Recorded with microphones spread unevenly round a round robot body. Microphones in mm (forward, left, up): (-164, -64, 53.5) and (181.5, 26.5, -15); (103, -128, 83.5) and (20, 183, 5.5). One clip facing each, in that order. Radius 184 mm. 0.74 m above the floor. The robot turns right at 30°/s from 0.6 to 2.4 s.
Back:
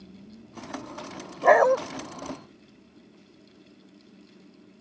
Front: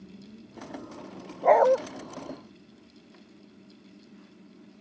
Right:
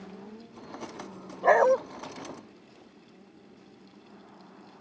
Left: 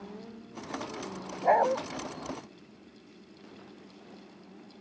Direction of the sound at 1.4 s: 115° right.